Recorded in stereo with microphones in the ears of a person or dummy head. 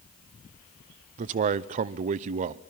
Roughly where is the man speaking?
Right.